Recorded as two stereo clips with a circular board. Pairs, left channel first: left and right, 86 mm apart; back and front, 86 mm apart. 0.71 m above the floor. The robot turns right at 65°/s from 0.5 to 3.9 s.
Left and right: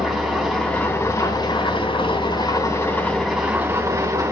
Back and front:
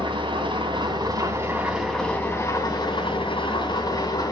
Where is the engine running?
Straight ahead, 3 m; by 4.3 s 140° right, 3 m.